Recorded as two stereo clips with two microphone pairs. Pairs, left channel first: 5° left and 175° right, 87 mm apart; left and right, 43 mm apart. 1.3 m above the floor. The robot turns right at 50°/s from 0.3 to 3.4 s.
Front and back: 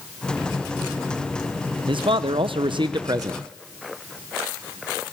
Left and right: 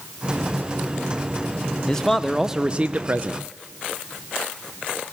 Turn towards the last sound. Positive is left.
turn(degrees=-120)